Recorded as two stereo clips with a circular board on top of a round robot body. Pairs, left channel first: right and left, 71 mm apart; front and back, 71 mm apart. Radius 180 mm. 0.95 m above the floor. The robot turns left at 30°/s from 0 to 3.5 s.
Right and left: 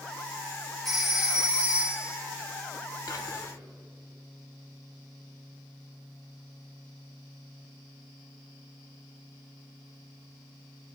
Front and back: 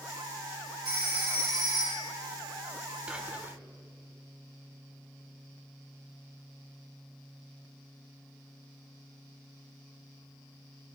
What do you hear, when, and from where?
0.8 s a phone ringing: straight behind, 3.5 m; by 2.1 s 145° left, 3.5 m
3.1 s whispering: 105° right, 1.4 m; by 3.6 s 120° right, 1.4 m